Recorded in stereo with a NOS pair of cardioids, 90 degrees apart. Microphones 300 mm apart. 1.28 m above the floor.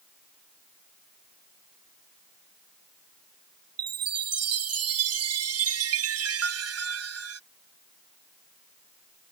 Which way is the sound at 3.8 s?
50° right.